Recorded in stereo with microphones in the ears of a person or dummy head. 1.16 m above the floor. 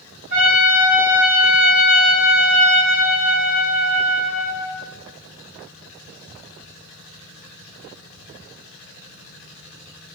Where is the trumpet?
55° right (ahead or behind), 2.0 m.